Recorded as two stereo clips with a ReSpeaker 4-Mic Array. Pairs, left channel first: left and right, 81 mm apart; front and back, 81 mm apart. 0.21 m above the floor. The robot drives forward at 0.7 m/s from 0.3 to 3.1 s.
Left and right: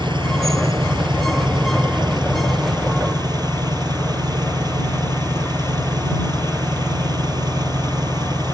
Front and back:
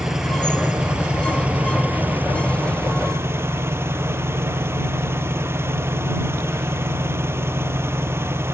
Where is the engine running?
95° right; by 8.6 s 120° right.